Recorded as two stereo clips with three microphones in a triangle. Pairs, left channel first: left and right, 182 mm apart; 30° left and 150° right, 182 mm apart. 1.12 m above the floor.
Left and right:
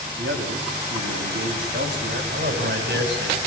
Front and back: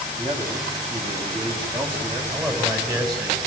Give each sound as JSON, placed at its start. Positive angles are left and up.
{"t": 0.2, "sound": "a man speaking", "azimuth_deg": -90, "distance_m": 7.5}
{"t": 2.3, "sound": "a man speaking", "azimuth_deg": -80, "distance_m": 7.5}